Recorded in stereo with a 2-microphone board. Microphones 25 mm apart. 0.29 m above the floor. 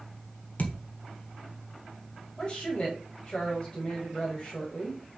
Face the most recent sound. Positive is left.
turn(degrees=35)  # may be behind; listen again after turning